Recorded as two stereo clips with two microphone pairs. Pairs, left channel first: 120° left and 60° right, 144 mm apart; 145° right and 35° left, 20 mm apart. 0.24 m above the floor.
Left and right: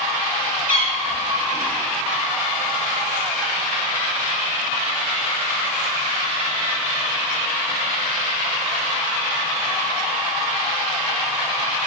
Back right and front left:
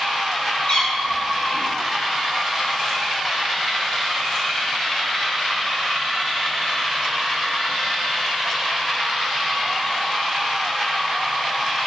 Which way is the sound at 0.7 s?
160° right.